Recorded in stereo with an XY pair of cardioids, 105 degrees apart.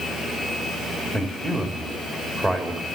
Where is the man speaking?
15° right, 2 m.